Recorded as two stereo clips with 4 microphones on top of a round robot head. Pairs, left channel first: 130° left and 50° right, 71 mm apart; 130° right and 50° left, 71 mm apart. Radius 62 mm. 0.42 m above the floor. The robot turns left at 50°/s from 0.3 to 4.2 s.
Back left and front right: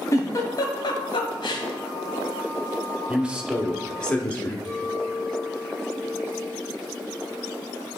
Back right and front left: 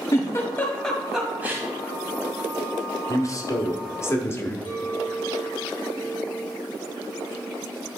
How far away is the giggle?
About 1.5 m.